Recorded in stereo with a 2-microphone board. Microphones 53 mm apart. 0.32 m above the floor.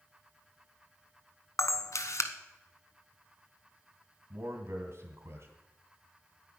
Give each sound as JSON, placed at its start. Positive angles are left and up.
{"t": 1.6, "sound": "a camera shutter", "side_deg": 70, "distance_m": 0.9}
{"t": 4.3, "sound": "a man speaking", "side_deg": -55, "distance_m": 2.0}